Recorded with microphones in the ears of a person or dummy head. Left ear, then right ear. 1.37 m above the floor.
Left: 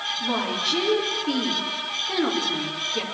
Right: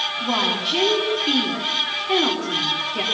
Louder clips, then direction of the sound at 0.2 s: Right 4 dB; 15° right (ahead or behind).